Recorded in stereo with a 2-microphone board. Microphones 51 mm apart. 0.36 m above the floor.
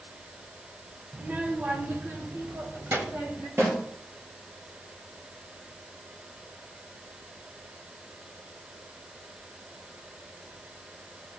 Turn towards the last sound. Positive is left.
turn(degrees=-50)  # may be behind; listen again after turning